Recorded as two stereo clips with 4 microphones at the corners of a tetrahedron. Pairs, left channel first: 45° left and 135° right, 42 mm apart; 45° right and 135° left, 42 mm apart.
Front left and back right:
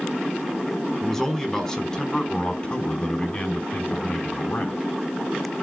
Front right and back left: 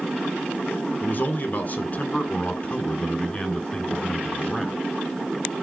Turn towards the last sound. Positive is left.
turn(degrees=30)